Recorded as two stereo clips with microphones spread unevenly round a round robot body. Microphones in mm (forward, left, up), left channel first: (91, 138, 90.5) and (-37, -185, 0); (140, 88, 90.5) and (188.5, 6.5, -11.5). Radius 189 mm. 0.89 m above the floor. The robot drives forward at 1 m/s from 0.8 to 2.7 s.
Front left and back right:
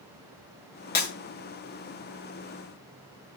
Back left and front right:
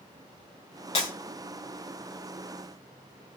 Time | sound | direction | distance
0.9 | breaking glass | 130° left | 7.5 m